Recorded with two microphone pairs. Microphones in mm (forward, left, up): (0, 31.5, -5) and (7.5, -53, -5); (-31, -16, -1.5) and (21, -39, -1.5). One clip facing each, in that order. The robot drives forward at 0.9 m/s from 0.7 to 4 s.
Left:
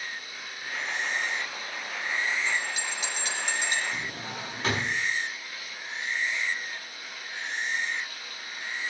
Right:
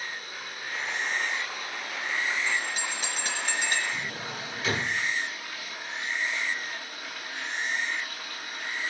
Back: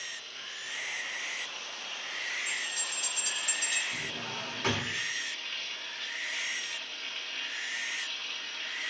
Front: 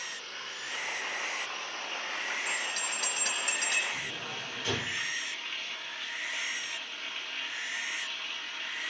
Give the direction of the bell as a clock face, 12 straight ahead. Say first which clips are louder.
Even, front 2 dB; 1 o'clock.